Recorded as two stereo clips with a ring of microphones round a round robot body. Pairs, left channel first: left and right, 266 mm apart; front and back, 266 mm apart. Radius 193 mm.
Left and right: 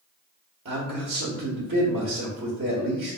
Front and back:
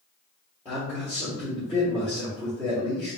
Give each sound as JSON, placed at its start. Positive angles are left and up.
{"t": 0.7, "sound": "a man speaking", "azimuth_deg": -105, "distance_m": 1.2}